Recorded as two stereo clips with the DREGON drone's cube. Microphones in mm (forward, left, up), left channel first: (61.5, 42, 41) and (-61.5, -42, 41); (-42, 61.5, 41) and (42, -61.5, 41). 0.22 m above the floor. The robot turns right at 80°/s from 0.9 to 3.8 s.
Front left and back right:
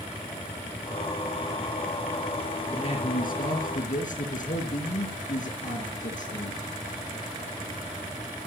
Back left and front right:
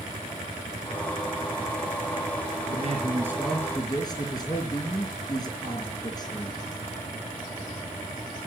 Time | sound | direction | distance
2.7 | a man speaking | 30° right | 5 m